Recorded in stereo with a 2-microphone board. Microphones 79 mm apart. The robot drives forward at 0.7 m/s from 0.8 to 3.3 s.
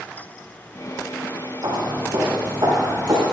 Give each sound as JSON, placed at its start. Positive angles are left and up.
{"t": 1.6, "sound": "footsteps", "side_deg": -85, "distance_m": 5.0}